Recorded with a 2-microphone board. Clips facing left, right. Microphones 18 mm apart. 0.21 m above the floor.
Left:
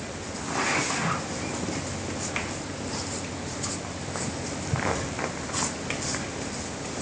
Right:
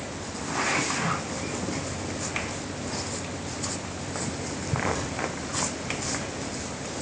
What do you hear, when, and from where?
Only background noise.